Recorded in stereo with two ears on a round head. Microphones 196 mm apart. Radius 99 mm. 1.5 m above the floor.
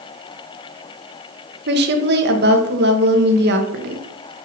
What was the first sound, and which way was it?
A woman speaking, 50° right (ahead or behind).